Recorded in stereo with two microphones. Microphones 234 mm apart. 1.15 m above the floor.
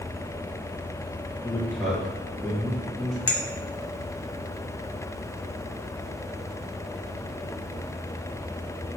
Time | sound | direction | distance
1.4 | a man speaking | centre (ahead or behind) | 1.9 m
3.3 | a clink | 70° left (ahead or behind) | 0.8 m